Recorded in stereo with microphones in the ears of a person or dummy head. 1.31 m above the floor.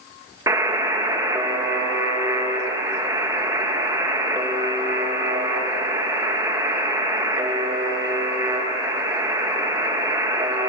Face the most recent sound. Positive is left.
turn(degrees=-20)  # may be behind; listen again after turning